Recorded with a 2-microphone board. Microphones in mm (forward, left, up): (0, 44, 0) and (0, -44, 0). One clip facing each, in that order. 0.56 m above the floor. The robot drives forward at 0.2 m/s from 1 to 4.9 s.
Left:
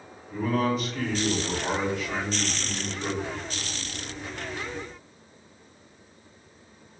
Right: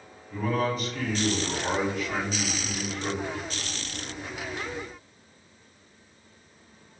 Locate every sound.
0.3 s a man speaking: 5° left (ahead or behind), 1.6 m